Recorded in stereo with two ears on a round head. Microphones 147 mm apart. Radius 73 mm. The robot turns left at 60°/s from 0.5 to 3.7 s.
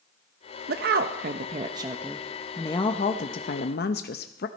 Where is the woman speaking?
85° right, 0.7 m; by 4.5 s 95° left, 0.7 m.